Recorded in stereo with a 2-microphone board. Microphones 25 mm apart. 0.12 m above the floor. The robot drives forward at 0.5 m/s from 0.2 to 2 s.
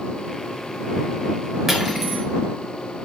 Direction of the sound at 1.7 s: 5° right (ahead or behind).